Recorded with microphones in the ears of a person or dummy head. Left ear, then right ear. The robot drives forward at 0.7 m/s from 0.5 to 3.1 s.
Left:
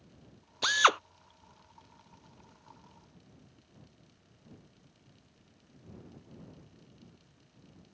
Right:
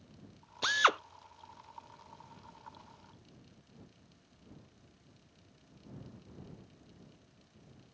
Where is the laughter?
No laughter in this recording.